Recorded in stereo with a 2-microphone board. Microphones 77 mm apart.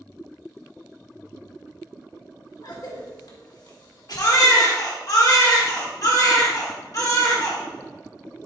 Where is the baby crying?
50° left (ahead or behind), 1.3 m.